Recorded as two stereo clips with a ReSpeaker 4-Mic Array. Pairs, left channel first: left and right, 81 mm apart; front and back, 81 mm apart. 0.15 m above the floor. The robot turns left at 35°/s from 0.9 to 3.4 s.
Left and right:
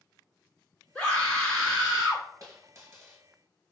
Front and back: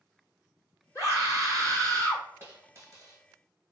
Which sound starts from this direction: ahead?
A scream, at 0.9 s.